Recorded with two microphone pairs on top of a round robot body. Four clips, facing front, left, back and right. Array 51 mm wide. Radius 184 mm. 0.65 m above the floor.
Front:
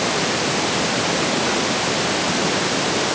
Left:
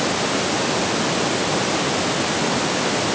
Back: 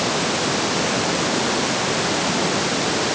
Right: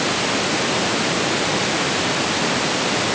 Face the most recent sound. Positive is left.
No sound to turn to.